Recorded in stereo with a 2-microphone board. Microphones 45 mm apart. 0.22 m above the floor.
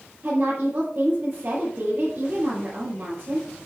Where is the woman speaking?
45° right (ahead or behind), 5 m.